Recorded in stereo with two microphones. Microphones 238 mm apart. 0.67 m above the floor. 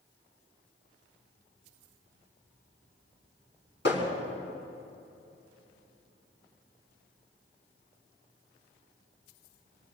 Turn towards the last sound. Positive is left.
turn(degrees=50)  # may be behind; listen again after turning